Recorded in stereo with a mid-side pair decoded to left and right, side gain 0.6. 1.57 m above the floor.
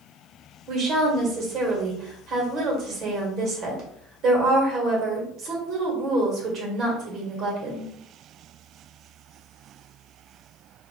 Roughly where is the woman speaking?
Ahead right.